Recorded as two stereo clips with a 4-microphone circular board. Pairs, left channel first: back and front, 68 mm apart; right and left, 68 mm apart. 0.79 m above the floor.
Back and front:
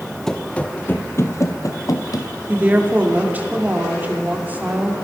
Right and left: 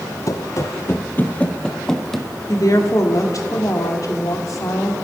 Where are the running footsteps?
95° right, 1.2 m; by 2.4 s 175° left, 1.7 m.